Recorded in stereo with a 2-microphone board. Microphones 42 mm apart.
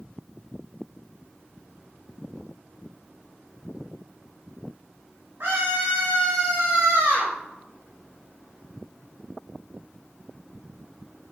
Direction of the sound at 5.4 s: 55° right (ahead or behind).